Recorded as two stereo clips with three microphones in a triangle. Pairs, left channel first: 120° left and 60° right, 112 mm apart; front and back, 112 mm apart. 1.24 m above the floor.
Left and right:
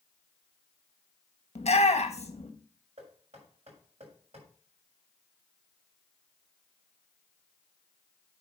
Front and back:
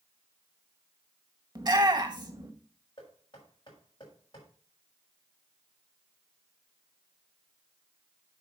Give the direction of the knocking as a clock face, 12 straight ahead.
2 o'clock.